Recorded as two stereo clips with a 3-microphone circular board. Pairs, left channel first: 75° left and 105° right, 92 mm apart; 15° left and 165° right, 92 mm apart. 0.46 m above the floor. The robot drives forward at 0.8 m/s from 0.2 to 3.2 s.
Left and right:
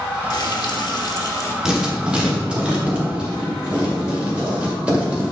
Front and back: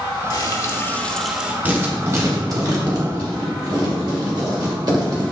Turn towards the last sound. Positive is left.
turn(degrees=-175)